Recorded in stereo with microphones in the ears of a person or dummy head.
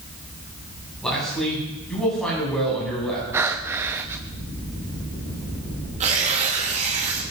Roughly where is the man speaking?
Centre.